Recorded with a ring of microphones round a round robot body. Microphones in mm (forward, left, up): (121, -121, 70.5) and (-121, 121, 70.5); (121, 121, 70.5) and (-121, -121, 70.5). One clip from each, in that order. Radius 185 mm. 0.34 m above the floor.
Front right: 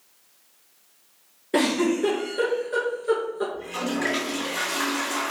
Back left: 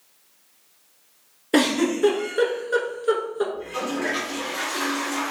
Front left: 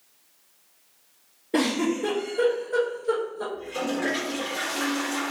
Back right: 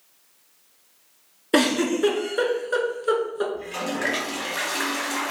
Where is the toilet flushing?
115° right, 1.5 m.